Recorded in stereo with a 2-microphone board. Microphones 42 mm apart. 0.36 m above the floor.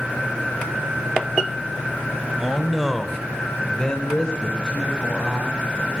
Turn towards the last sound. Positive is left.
turn(degrees=20)  # may be behind; listen again after turning